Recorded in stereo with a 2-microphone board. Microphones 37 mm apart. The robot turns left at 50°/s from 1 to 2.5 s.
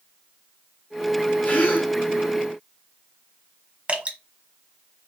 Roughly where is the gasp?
Left.